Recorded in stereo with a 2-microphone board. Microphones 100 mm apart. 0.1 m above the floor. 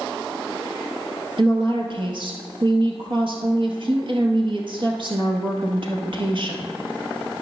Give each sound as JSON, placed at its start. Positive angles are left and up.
{"t": 1.4, "sound": "a woman speaking", "side_deg": -55, "distance_m": 1.9}